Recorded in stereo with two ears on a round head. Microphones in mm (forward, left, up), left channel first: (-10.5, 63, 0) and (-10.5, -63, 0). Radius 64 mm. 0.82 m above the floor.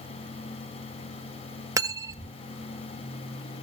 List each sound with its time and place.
1.8 s cutlery clinking: 25° right (ahead or behind), 1.1 m